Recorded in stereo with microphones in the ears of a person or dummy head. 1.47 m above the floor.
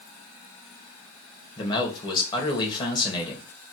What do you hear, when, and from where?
1.6 s a man speaking: 20° left (ahead or behind), 1.2 m